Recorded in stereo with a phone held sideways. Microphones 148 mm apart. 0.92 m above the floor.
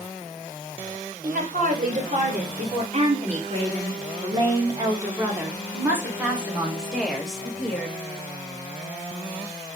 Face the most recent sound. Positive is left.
turn(degrees=5)  # may be behind; listen again after turning